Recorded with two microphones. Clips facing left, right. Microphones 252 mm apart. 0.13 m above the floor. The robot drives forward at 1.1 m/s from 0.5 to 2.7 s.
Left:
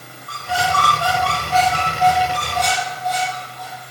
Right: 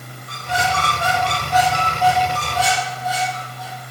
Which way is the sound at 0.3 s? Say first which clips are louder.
Left 1 dB; 20° right (ahead or behind).